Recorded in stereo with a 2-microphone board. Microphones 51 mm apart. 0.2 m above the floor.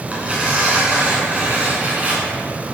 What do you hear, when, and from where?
0.1 s tearing paper: 25° right (ahead or behind), 1.8 m